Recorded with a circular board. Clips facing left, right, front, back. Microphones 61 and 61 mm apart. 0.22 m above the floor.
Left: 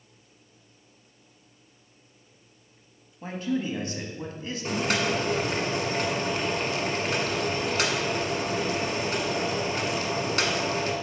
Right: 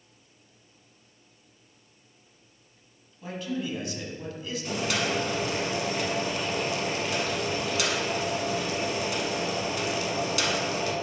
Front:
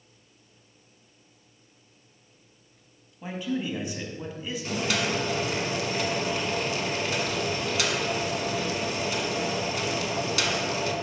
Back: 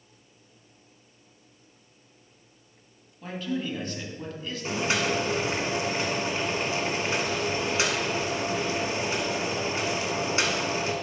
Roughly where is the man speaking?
Left.